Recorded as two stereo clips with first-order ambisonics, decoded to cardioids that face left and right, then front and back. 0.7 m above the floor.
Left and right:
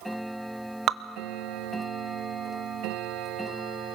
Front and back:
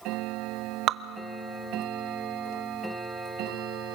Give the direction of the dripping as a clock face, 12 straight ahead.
5 o'clock.